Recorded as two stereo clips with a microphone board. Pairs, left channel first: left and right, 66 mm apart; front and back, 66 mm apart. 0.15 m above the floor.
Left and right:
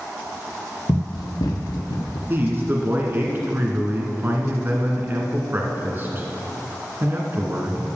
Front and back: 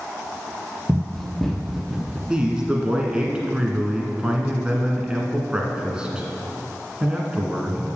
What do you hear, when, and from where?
0.9 s running footsteps: 75° left, 1.1 m; by 2.2 s 95° left, 1.8 m
2.3 s a man speaking: 115° right, 1.6 m